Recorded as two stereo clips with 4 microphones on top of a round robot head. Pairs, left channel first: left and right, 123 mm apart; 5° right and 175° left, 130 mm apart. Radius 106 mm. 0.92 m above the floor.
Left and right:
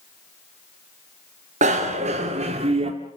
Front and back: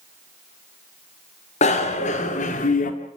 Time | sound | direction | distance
1.6 | a bicycle bell | 50° right | 2 m